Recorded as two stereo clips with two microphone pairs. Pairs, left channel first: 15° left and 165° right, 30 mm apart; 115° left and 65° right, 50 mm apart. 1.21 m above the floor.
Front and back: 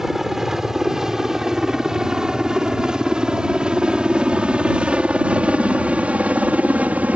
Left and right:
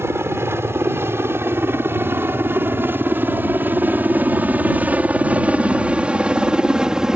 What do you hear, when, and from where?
0.0 s a helicopter: 85° right; by 7.2 s 140° right